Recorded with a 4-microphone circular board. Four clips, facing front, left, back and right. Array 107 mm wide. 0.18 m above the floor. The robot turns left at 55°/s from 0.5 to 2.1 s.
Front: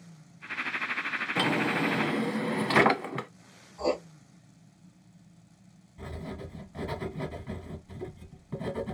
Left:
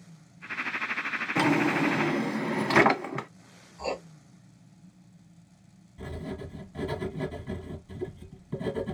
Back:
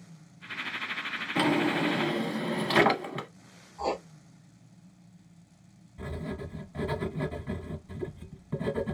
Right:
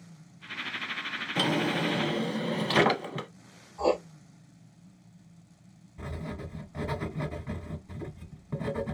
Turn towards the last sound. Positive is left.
turn(degrees=-105)